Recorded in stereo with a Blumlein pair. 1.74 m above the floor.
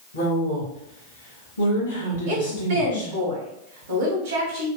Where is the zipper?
I don't hear a zipper.